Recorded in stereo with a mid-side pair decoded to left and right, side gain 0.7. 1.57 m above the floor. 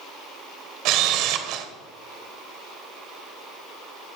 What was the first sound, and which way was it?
A camera shutter, 65° right.